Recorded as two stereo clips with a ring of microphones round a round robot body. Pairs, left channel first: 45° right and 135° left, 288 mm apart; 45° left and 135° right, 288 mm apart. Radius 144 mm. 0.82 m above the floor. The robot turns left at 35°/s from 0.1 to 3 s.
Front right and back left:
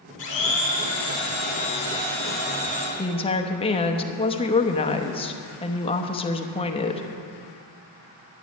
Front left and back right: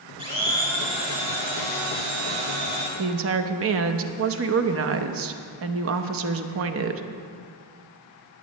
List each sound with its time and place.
0.2 s a blender: 60° right, 4.5 m; by 2.9 s 155° right, 4.5 m
3.0 s a woman speaking: 110° right, 0.8 m